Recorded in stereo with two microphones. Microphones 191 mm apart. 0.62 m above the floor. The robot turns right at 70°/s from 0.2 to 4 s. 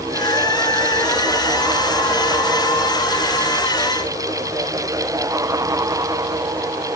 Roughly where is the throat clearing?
No throat clearing in this recording.